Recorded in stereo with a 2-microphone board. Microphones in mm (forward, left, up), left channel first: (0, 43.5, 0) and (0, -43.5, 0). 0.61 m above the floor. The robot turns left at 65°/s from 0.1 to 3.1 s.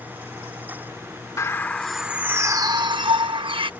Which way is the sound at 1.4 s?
35° left.